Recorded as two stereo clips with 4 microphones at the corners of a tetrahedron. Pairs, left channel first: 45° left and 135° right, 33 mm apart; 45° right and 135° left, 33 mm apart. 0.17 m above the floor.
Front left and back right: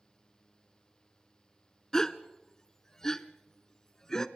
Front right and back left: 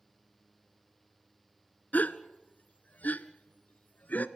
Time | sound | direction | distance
1.9 | a gasp | 25° right | 0.8 m